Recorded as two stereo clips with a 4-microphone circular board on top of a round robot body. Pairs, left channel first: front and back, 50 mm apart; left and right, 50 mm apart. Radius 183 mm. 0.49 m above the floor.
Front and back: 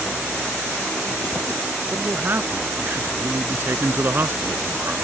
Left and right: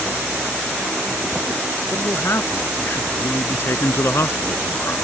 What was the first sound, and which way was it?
A man speaking, 130° left.